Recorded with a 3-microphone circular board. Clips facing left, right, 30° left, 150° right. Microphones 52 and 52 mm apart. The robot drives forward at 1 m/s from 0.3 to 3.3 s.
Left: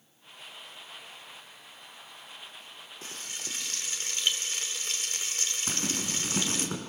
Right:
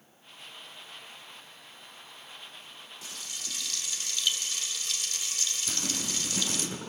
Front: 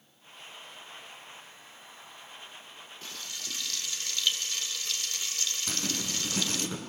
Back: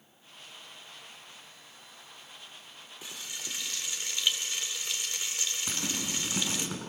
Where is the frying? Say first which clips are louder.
Left 2 dB, even; 135° left, 2 m; by 6.7 s 140° left, 2.5 m.